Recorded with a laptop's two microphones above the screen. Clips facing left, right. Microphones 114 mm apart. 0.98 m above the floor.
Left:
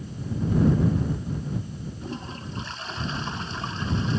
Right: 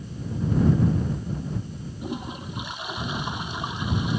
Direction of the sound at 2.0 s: 15° right (ahead or behind).